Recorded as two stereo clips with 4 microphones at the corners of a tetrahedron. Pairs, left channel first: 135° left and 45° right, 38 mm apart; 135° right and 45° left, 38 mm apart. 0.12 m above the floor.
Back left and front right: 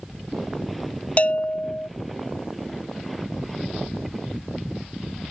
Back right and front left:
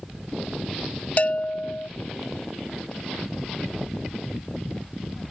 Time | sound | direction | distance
1.2 | a bell | straight behind | ?